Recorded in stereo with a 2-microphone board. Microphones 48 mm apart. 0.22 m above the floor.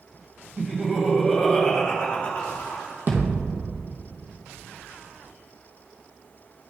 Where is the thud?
45° right (ahead or behind), 1.7 m.